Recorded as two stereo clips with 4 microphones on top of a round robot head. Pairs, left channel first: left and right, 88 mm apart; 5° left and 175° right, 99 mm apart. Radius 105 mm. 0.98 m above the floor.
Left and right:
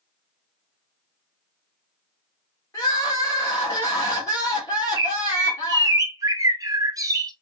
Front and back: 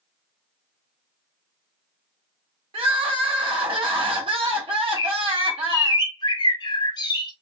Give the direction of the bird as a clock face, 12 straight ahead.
1 o'clock.